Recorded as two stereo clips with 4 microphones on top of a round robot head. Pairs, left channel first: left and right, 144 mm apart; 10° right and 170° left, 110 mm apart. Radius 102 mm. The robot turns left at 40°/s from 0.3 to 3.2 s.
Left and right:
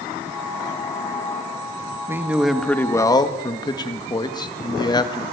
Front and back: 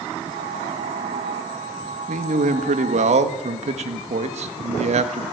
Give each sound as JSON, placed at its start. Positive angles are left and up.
{"t": 2.1, "sound": "a man speaking", "azimuth_deg": -165, "distance_m": 1.9}